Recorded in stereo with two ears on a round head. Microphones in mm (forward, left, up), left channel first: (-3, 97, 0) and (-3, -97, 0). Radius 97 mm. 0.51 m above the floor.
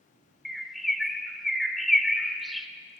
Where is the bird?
Centre (ahead or behind), 0.8 m.